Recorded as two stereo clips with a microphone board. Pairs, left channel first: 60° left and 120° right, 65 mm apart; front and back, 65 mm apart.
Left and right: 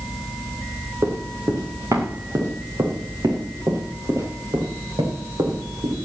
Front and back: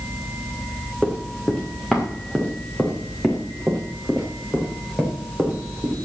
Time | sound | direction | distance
1.0 | running footsteps | 85° right | 4.5 m